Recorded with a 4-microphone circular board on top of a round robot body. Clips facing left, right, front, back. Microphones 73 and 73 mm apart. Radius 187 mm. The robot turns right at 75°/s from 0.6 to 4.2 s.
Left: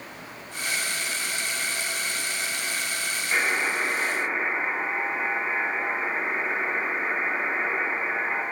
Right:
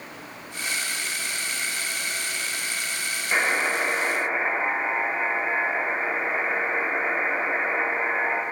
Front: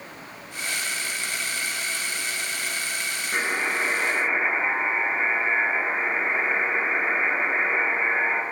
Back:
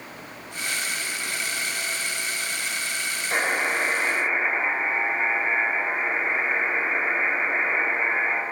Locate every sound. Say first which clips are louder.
3.3 s a buzzer: right 2 dB, back 2 dB; 165° right, 2.5 m; by 8.4 s 95° right, 2.5 m